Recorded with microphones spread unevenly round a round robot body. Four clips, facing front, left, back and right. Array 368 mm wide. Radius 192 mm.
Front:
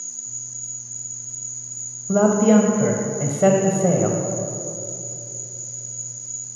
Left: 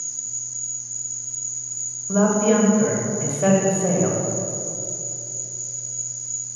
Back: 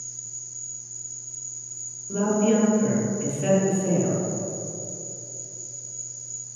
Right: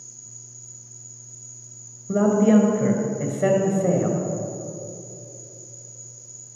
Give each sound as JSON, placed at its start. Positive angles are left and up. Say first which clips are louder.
{"t": 0.0, "sound": "an insect", "louder": "left 4 dB, front 3 dB", "azimuth_deg": 80, "distance_m": 1.7}
{"t": 2.1, "sound": "a man speaking", "louder": "right 1 dB, front 6 dB", "azimuth_deg": -15, "distance_m": 2.0}